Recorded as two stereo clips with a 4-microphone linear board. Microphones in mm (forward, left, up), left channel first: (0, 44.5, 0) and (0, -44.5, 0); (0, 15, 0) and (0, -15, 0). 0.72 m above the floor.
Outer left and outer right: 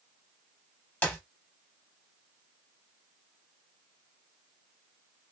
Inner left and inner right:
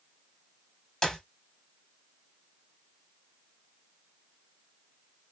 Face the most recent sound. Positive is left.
turn(degrees=25)  # may be behind; listen again after turning